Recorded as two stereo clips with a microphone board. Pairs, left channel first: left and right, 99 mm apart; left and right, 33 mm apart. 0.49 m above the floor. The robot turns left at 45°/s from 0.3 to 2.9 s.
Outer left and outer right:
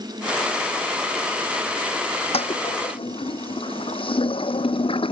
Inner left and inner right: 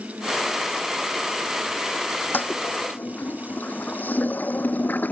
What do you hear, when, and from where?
2.3 s a toilet flushing: 90° left; by 5.1 s 65° left (ahead or behind)